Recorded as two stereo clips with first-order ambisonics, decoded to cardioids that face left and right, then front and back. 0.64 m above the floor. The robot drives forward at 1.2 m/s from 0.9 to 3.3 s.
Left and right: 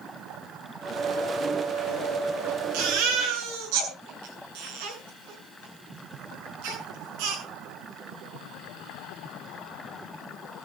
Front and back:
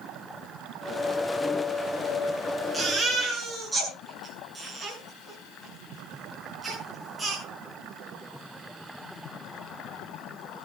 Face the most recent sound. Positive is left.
turn(degrees=-95)